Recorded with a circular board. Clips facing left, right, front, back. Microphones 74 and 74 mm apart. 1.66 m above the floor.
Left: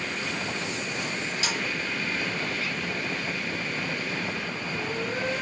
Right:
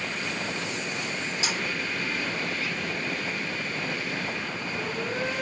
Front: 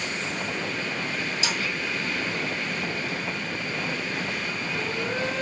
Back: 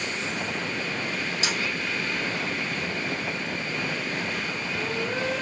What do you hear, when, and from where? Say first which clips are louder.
1.4 s a snare drum: even, back 1 dB; 150° right, 1.9 m